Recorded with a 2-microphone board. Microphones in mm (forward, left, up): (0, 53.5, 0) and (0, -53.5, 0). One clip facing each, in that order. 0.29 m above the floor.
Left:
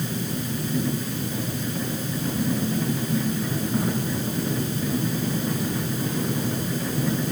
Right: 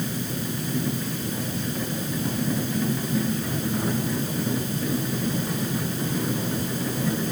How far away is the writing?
No writing in this recording.